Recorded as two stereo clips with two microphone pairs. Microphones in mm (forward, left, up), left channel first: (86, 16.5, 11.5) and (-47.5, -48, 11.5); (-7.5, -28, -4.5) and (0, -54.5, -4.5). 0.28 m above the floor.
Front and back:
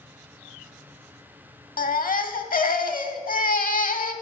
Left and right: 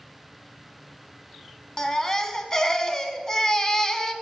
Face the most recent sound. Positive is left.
turn(degrees=35)